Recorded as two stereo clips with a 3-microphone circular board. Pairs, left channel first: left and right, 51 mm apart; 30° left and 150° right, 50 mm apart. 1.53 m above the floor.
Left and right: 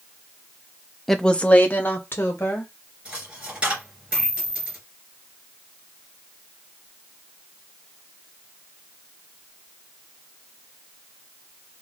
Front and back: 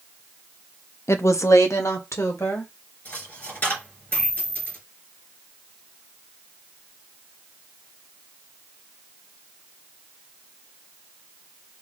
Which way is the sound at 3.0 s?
25° right.